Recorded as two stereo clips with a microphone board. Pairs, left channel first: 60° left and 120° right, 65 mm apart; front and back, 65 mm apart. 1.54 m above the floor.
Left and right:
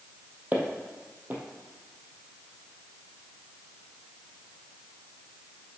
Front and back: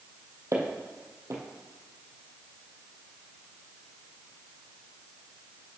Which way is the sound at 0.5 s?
175° right.